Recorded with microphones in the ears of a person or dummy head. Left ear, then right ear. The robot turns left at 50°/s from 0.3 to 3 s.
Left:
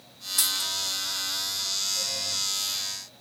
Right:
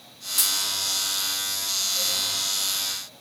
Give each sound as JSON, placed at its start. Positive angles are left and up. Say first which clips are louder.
{"t": 0.4, "sound": "a dropped coin", "louder": "right 2 dB", "side_deg": -15, "distance_m": 1.5}